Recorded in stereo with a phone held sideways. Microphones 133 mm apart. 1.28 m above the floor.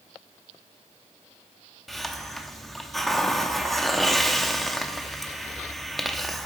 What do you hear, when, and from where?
1.9 s a hiss: centre (ahead or behind), 0.8 m